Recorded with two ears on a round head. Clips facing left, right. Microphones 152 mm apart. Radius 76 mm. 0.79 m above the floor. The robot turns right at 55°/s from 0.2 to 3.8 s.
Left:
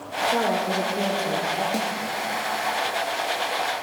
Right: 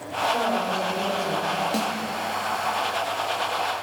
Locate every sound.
0.3 s a woman speaking: 75° left, 2 m; by 1.6 s 150° left, 2 m
1.7 s a snare drum: centre (ahead or behind), 0.8 m; by 2.0 s 10° left (ahead or behind), 0.8 m